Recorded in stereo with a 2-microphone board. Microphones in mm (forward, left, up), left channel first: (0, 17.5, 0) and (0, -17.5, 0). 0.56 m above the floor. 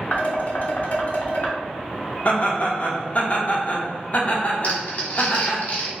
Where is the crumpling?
50° left (ahead or behind), 1.1 m.